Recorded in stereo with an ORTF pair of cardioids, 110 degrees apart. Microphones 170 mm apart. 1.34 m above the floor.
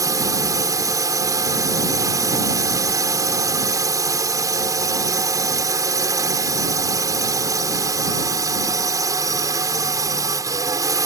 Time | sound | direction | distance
0.0 | a drone | 20° right | ?